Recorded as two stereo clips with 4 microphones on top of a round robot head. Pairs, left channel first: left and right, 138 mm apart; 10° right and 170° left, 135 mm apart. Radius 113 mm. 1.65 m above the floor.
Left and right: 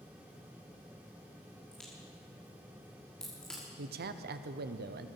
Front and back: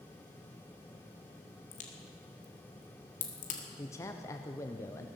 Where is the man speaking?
85° right, 0.8 m.